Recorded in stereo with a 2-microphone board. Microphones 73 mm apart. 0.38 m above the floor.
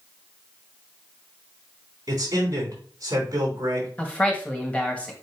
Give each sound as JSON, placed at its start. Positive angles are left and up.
{"t": 2.1, "sound": "a man speaking", "side_deg": -50, "distance_m": 4.0}
{"t": 4.0, "sound": "a man speaking", "side_deg": 20, "distance_m": 1.7}